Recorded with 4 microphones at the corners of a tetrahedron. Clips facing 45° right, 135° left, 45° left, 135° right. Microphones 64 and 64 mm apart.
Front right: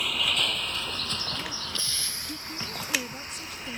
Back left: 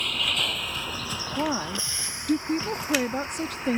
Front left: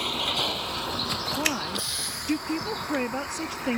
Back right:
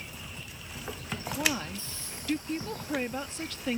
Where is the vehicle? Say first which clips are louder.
Even, front left 15 dB; 40° left; by 3.8 s 75° left.